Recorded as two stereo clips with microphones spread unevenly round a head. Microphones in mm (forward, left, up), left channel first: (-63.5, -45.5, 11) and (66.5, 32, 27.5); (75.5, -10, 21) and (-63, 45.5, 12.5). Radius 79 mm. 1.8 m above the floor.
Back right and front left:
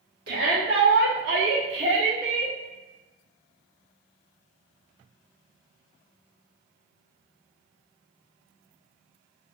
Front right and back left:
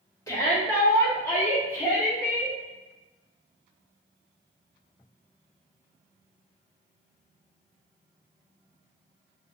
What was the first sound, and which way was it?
A shout, 45° left.